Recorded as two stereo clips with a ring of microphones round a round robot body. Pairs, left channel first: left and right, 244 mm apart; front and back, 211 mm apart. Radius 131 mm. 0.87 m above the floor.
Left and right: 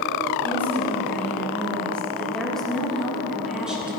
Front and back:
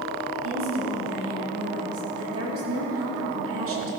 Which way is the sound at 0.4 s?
170° left.